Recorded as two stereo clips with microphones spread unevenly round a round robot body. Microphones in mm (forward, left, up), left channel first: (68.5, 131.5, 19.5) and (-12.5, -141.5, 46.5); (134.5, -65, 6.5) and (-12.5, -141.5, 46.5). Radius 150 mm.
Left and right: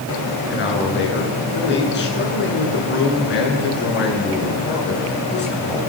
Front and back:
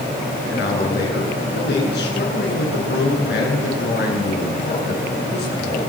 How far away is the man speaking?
About 7.5 m.